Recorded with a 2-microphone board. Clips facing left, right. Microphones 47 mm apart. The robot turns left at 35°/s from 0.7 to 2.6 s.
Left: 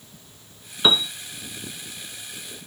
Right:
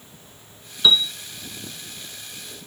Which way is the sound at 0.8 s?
30° left (ahead or behind).